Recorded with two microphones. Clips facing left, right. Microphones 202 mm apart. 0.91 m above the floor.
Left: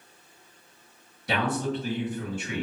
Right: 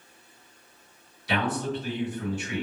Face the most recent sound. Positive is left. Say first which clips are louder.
# left 1 dB
turn(degrees=55)  # may be behind; listen again after turning